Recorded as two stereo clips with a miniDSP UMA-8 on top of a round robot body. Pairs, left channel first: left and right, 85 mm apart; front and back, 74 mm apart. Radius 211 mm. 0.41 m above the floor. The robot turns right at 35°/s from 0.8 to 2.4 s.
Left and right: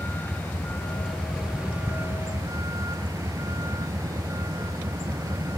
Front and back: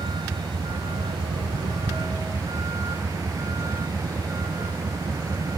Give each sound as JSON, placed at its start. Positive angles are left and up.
{"t": 0.0, "sound": "a vehicle", "azimuth_deg": 160}